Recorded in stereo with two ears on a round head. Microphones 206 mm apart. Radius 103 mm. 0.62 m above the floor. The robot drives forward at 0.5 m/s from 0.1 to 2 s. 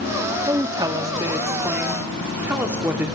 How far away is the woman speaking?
About 0.5 m.